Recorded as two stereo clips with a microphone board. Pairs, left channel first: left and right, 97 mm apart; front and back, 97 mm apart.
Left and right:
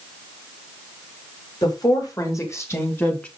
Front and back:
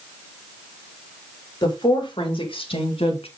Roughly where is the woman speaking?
Ahead left.